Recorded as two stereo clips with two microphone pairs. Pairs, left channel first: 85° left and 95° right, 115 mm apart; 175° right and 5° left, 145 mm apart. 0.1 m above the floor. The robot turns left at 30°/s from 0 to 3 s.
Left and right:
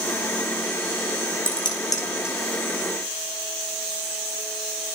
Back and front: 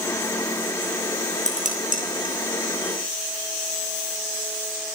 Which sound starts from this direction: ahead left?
Dishes clattering, at 1.5 s.